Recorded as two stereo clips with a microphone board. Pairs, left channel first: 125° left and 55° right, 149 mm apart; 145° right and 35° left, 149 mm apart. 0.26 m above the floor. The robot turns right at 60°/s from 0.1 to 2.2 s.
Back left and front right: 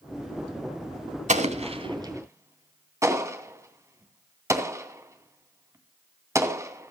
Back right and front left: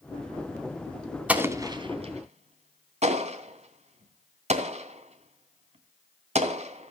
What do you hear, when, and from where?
1.3 s an explosion: 45° right, 2.5 m; by 6.9 s 10° left, 2.5 m